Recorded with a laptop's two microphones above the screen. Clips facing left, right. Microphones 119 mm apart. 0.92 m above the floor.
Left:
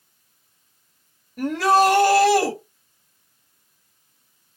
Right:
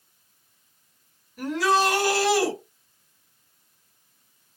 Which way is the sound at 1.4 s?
55° left (ahead or behind).